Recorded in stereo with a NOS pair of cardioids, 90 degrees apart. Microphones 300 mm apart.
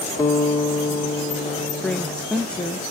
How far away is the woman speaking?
About 0.6 m.